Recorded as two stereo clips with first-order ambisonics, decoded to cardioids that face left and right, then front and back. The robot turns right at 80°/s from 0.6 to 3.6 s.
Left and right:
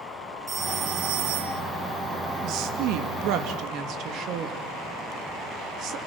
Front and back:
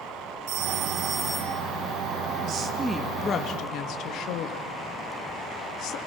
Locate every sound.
0.5 s a phone ringing: 160° right, 1.9 m; by 1.6 s 75° right, 1.9 m
2.4 s a woman speaking: 135° right, 2 m; by 6.0 s 45° right, 2 m